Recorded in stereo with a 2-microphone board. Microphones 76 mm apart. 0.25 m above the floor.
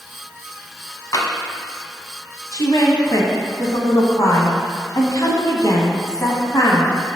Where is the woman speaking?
50° left (ahead or behind), 1.4 m.